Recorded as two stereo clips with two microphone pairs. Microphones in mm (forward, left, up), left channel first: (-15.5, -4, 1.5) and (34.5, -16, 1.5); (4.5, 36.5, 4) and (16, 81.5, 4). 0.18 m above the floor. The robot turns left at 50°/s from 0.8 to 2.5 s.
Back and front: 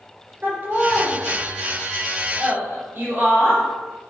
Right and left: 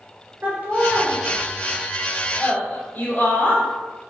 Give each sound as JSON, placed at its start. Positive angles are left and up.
{"t": 0.4, "sound": "laughter", "azimuth_deg": 35, "distance_m": 3.0}